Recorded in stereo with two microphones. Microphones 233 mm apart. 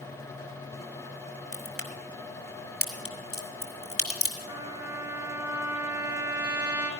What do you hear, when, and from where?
1.5 s a crack: 70° left (ahead or behind), 3.5 m
4.5 s a trumpet: 10° right (ahead or behind), 3.5 m